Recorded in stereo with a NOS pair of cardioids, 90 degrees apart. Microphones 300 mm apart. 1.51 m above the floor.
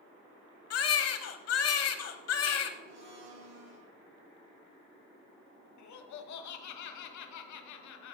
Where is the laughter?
70° left, 1.2 m.